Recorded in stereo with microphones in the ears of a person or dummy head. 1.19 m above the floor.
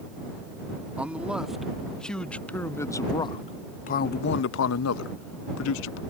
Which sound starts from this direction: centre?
A man speaking, at 1.0 s.